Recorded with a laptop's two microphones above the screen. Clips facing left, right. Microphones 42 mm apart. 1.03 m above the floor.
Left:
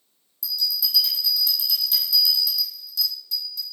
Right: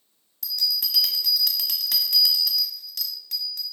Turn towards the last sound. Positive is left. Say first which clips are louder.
# even
turn(degrees=-60)  # may be behind; listen again after turning